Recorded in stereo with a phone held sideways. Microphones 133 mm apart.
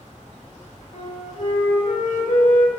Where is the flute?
70° left (ahead or behind), 5 m.